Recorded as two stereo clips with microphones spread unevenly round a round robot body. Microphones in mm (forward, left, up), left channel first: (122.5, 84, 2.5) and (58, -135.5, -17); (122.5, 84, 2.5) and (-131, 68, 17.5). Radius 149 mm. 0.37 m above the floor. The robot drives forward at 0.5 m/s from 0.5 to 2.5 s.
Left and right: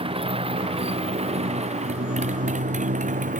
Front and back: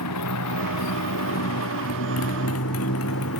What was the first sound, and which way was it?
A motorcycle, 40° right.